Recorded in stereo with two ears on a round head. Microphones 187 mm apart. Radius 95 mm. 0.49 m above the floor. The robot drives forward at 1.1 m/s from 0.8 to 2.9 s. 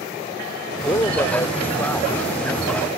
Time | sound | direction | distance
0.8 | a man speaking | 20° left (ahead or behind) | ?